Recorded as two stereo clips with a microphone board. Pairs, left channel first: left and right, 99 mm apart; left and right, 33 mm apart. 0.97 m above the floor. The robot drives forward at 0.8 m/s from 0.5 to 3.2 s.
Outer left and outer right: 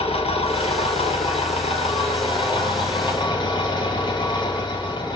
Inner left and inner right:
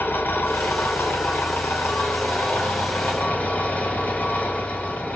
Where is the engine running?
80° left, 2.5 m; by 5.2 s 50° left (ahead or behind), 3 m.